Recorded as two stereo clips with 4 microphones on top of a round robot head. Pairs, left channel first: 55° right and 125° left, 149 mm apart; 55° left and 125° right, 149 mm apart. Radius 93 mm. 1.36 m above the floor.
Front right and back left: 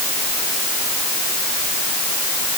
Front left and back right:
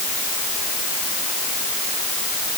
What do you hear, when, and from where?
Only background noise.